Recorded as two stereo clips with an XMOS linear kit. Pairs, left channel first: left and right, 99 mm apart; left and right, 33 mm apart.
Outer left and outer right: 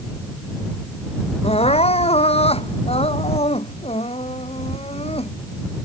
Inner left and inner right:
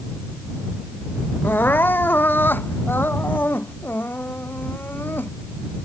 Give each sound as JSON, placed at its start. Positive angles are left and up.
{"t": 1.4, "sound": "crying", "side_deg": 75}